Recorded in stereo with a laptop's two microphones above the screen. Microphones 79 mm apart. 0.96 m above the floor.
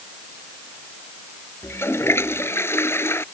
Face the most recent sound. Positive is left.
turn(degrees=30)  # may be behind; listen again after turning